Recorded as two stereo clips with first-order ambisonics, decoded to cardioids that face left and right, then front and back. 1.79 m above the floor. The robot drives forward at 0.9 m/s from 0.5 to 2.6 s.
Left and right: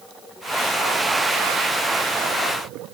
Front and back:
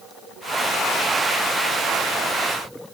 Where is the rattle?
No rattle in this recording.